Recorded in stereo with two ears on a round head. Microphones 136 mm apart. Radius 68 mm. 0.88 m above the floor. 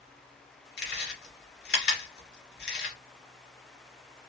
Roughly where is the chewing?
Left.